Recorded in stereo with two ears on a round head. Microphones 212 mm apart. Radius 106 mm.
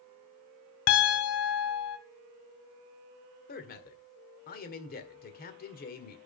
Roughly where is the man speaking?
Left.